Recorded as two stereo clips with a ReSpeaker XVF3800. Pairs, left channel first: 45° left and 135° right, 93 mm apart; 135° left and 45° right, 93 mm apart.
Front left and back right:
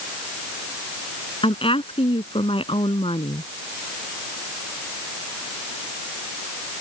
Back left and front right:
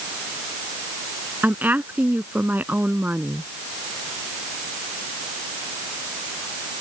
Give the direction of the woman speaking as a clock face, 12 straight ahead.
11 o'clock.